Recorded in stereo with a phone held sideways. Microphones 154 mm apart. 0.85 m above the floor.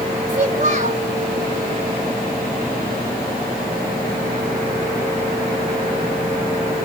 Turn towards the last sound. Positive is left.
turn(degrees=-50)  # may be behind; listen again after turning